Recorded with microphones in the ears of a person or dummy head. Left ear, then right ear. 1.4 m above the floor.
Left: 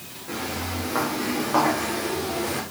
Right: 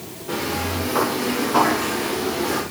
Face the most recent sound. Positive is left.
turn(degrees=40)  # may be behind; listen again after turning